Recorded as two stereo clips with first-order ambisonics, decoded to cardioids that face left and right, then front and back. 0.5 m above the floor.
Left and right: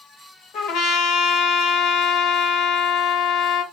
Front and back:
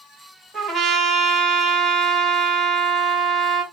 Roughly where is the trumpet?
Left.